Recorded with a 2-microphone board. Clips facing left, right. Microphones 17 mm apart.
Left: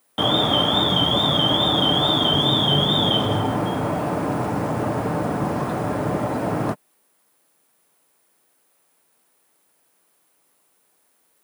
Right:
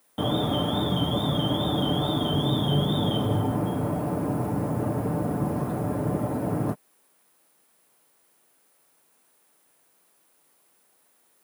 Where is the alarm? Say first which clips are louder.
Left 7 dB; 45° left (ahead or behind).